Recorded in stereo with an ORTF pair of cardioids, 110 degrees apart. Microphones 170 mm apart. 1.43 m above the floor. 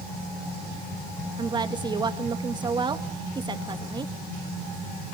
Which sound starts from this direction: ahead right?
A woman speaking, at 1.4 s.